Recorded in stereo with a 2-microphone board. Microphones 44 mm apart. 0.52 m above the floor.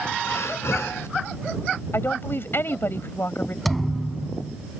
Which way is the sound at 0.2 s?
90° left.